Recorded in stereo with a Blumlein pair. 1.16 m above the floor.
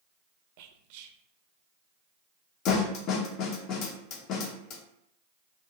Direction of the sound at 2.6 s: 40° left.